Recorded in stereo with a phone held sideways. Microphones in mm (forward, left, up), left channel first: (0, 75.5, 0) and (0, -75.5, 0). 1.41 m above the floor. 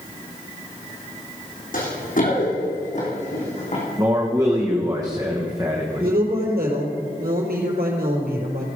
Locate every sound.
1.7 s running footsteps: 60° left (ahead or behind), 3.5 m; by 3.9 s 50° left (ahead or behind), 4.5 m
4.0 s a man speaking: 25° right (ahead or behind), 1.3 m
6.0 s a woman speaking: 80° right, 4 m